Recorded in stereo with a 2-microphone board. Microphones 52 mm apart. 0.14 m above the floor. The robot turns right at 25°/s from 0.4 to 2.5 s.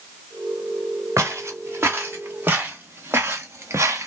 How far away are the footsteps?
About 2 m.